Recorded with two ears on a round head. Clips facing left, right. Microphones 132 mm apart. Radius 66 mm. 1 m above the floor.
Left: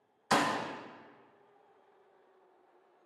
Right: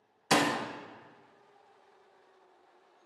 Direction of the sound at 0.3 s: 25° right (ahead or behind).